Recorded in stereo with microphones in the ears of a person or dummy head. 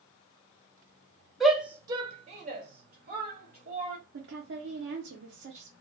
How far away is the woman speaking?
About 0.7 m.